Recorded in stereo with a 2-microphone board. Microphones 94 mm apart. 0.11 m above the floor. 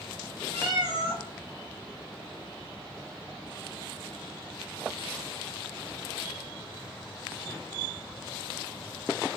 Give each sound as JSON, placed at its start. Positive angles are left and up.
{"t": 0.5, "sound": "a cat meowing", "side_deg": -10, "distance_m": 1.0}